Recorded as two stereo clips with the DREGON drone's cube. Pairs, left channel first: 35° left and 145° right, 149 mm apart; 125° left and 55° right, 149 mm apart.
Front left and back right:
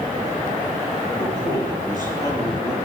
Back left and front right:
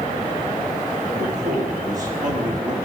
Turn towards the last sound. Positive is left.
turn(degrees=-80)